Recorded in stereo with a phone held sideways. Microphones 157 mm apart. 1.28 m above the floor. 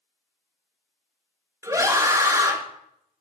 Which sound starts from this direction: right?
A scream, at 1.6 s.